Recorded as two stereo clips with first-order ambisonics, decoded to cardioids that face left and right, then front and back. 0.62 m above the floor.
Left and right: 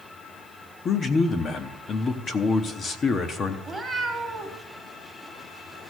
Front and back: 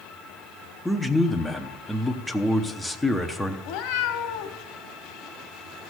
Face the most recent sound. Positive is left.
turn(degrees=-5)